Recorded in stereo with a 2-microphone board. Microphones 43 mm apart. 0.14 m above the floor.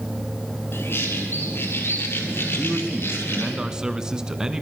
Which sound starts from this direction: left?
A bird, at 0.7 s.